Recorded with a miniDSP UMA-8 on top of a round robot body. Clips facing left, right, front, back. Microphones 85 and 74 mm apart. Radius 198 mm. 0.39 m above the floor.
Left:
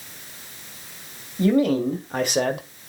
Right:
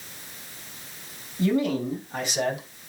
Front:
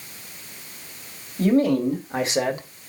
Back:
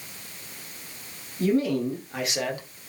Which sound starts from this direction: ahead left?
A man speaking, at 1.4 s.